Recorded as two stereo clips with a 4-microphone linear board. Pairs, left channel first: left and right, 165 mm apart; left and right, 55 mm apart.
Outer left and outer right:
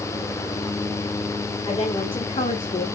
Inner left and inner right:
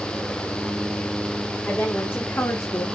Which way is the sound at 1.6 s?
30° left (ahead or behind).